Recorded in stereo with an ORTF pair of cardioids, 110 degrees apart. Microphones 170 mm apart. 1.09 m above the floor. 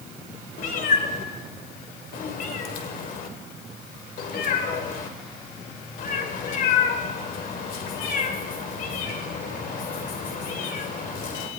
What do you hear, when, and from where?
0.6 s a cat meowing: 55° left, 2 m